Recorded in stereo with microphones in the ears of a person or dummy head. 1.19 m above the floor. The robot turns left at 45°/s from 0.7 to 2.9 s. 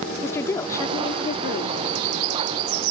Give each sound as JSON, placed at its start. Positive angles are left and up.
{"t": 0.2, "sound": "a woman speaking", "azimuth_deg": 160}